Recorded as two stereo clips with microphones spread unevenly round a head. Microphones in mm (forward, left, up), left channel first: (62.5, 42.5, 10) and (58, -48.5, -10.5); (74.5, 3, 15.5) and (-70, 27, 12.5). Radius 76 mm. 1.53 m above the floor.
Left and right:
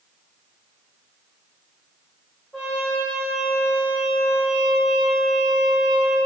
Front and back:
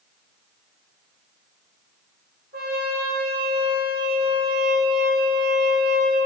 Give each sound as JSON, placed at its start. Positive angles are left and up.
{"t": 2.5, "sound": "a trumpet", "azimuth_deg": 160, "distance_m": 1.9}